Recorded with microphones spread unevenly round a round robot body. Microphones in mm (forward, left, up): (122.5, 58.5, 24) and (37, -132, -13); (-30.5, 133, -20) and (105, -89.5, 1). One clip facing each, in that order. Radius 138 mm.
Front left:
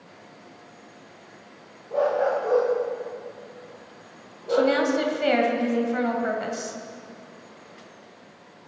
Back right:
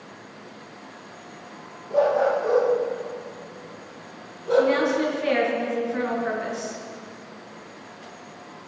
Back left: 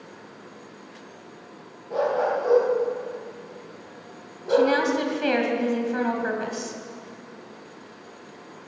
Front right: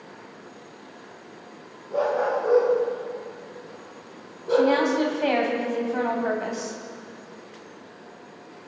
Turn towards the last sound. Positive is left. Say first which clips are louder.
# back right 1 dB, even
turn(degrees=65)